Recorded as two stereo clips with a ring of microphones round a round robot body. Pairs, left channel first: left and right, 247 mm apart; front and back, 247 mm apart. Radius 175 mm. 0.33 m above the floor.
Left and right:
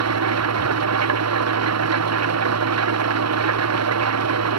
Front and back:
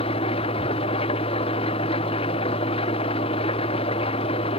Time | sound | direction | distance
0.0 | an engine running | 75° right | ?